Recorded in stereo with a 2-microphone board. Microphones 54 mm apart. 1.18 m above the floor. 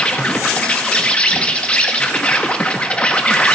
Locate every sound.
0.0 s an insect: 20° left (ahead or behind), 1.0 m